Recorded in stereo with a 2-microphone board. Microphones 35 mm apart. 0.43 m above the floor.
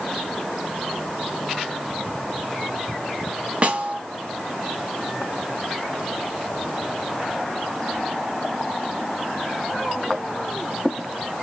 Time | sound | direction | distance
3.6 | a snare drum | 35° right (ahead or behind) | 0.7 m